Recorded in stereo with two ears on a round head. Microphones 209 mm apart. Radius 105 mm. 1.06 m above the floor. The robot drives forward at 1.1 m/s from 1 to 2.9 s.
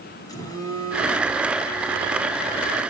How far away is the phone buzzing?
About 4 m.